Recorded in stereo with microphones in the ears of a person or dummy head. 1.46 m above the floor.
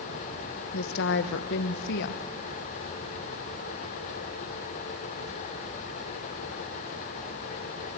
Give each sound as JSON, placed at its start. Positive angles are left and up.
{"t": 0.7, "sound": "a woman speaking", "side_deg": 65, "distance_m": 0.8}